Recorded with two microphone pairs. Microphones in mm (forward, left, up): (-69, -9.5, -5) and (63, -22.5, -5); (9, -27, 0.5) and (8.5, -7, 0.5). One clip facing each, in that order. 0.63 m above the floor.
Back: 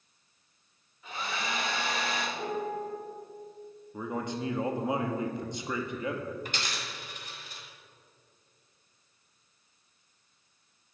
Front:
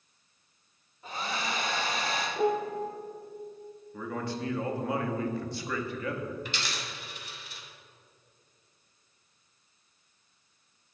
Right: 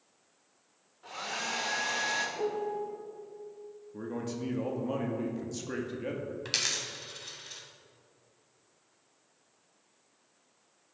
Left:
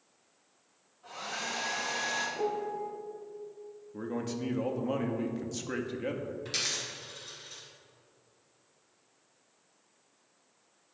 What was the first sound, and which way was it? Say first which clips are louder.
A hair dryer: front 1 dB, right 1 dB; 55° right.